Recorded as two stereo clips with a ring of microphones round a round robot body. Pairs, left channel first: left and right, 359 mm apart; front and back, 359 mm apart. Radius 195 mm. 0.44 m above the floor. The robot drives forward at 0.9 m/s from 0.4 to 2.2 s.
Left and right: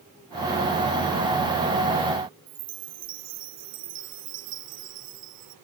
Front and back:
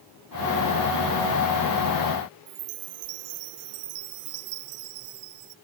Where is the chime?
145° right.